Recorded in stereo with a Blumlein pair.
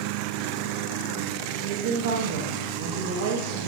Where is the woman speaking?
50° right, 0.7 m.